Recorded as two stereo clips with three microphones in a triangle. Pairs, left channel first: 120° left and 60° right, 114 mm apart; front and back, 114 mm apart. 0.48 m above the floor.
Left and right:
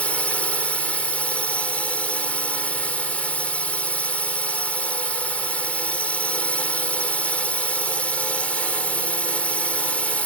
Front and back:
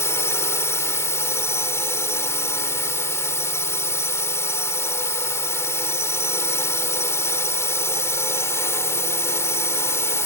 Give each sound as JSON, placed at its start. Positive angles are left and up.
{"t": 0.0, "sound": "a drone", "azimuth_deg": 50}